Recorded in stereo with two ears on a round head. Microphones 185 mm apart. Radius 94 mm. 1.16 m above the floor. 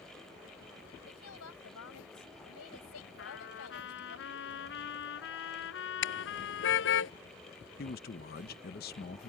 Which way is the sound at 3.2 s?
65° left (ahead or behind).